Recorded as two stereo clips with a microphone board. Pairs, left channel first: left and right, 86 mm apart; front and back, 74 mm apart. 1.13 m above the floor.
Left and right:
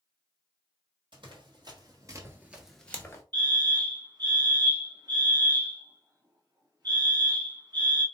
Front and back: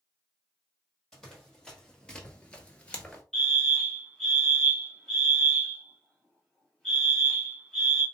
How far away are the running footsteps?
About 2.5 m.